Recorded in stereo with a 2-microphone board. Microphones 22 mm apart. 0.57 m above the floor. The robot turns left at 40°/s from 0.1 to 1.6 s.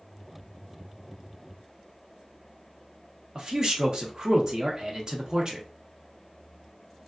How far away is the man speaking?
About 0.8 m.